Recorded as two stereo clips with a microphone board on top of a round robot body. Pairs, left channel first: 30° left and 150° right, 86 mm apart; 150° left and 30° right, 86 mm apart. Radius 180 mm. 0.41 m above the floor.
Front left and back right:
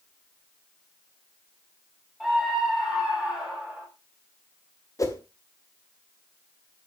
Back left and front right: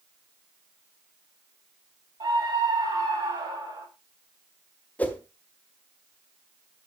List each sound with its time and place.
2.2 s a scream: 60° right, 4.5 m
5.0 s a whoosh: 80° left, 1.8 m